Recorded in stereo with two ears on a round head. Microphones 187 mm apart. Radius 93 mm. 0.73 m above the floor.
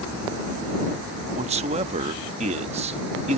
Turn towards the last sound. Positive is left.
turn(degrees=-30)  # may be behind; listen again after turning